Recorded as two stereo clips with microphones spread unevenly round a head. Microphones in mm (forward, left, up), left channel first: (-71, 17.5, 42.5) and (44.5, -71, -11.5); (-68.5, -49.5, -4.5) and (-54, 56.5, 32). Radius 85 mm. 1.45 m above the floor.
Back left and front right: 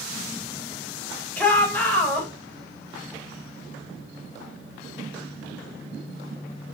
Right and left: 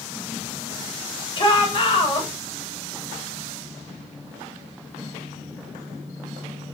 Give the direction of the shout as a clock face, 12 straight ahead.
5 o'clock.